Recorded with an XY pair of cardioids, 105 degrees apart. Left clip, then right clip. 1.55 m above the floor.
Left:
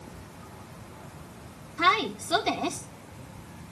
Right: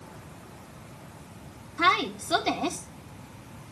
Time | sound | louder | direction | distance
1.8 | a woman speaking | even | 15° right | 3.5 m